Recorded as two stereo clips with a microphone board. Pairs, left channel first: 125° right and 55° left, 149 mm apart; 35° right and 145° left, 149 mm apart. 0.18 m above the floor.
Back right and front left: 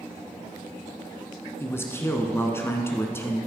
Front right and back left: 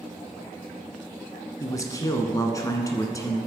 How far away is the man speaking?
About 1.3 m.